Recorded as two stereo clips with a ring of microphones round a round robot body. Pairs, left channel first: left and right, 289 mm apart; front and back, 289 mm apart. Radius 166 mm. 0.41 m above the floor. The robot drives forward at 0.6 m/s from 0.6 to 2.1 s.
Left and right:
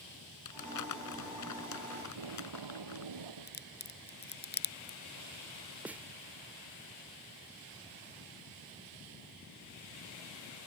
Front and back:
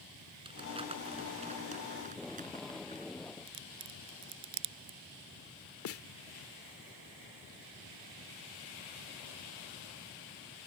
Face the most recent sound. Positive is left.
turn(degrees=-5)